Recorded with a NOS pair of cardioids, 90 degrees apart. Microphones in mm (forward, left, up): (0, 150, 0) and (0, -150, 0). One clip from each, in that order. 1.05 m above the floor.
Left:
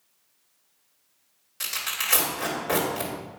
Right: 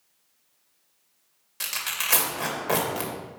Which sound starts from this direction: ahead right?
Tearing paper, at 1.6 s.